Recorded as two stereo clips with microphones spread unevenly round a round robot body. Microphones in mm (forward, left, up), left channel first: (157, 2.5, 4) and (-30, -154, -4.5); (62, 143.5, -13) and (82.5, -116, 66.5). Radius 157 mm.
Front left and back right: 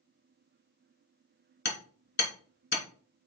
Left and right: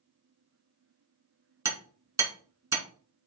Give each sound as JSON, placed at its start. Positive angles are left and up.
{"t": 1.6, "sound": "hammering", "azimuth_deg": -5, "distance_m": 3.0}